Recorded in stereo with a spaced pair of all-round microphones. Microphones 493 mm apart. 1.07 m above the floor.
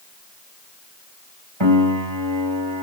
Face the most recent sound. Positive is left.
turn(degrees=-70)  # may be behind; listen again after turning